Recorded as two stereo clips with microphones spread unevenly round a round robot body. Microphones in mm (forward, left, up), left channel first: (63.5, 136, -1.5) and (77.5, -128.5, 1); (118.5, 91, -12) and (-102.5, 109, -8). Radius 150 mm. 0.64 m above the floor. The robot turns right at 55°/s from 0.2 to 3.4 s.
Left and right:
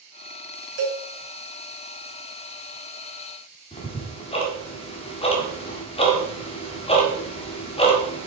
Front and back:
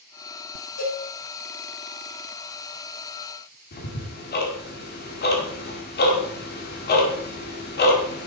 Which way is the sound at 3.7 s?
30° left.